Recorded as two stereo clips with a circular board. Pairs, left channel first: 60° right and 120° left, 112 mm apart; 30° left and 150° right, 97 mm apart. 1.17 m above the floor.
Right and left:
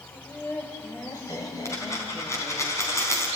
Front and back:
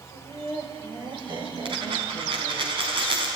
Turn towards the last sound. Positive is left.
turn(degrees=-125)